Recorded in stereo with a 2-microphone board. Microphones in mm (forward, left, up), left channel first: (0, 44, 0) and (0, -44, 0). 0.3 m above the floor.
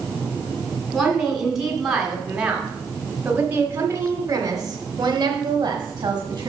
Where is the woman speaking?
Centre (ahead or behind), 2.5 m; by 6.5 s 50° right (ahead or behind), 1.7 m.